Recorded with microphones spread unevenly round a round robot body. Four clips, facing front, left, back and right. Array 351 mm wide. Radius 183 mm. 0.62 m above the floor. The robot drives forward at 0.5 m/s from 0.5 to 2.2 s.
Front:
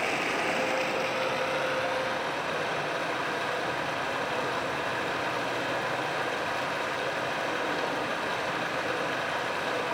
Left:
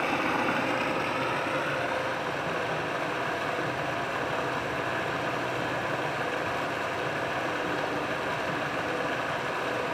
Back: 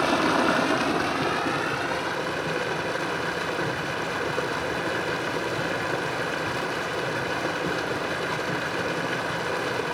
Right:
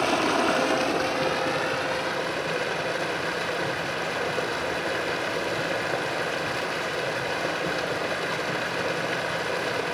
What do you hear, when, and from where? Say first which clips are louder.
0.0 s running water: right 4 dB, back 8 dB; 165° right, 0.8 m; by 9.9 s 170° right, 1.6 m